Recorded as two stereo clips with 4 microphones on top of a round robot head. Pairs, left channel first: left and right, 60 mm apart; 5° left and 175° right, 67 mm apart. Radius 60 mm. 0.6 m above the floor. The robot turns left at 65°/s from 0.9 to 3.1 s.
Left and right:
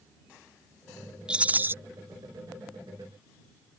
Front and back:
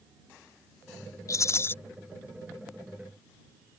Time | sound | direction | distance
1.3 | a rattle | 15° right | ?